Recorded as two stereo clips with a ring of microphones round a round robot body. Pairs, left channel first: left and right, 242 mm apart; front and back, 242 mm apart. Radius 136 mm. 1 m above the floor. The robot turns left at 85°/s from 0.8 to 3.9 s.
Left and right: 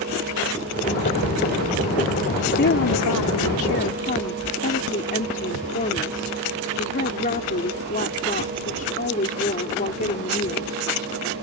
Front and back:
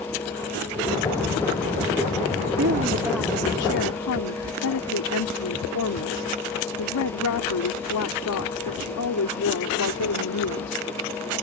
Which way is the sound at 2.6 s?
140° left.